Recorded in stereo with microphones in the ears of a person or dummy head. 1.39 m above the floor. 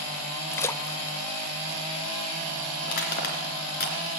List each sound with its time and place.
0.5 s a splash: 10° left (ahead or behind), 0.5 m
2.8 s crushing: 55° left (ahead or behind), 3 m